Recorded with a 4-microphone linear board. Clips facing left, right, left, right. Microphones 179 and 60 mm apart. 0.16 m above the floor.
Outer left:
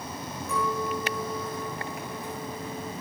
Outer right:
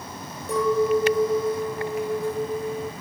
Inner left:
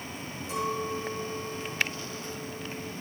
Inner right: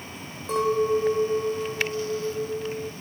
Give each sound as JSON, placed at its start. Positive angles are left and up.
{"t": 0.5, "sound": "a clink", "side_deg": -75, "distance_m": 4.0}